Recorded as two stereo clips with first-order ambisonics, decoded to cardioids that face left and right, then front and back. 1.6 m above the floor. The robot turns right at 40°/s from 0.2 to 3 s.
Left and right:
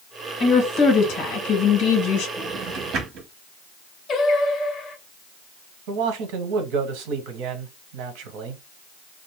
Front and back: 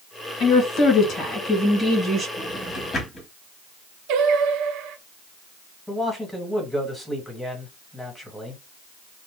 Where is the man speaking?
90° right, 1.2 m.